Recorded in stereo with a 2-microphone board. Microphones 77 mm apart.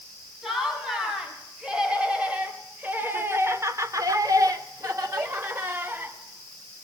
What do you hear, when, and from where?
0.4 s laughter: 5° right (ahead or behind), 6 m; by 6.2 s 30° right (ahead or behind), 3.5 m